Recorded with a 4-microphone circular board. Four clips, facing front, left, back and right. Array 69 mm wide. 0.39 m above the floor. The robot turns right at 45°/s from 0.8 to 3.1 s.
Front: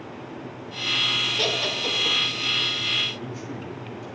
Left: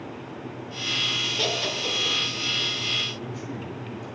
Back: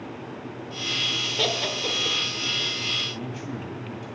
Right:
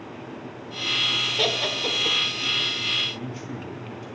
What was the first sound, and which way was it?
Laughter, 115° right.